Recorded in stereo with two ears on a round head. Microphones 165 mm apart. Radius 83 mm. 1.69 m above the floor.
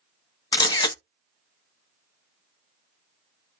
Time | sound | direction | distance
0.5 | a camera shutter | 25° left (ahead or behind) | 0.6 m